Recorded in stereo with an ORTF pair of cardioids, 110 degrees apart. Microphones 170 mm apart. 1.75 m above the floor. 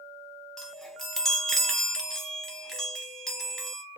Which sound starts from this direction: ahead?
A chime, at 0.6 s.